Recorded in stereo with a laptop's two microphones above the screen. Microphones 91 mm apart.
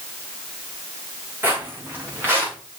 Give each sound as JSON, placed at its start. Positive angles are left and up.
{"t": 1.4, "sound": "footsteps", "side_deg": -25, "distance_m": 4.5}